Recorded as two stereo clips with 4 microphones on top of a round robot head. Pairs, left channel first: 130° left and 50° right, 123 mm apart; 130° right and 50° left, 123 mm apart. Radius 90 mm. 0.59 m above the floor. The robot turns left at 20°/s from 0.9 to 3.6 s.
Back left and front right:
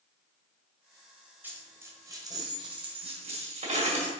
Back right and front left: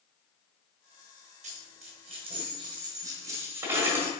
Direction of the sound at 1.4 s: 25° left.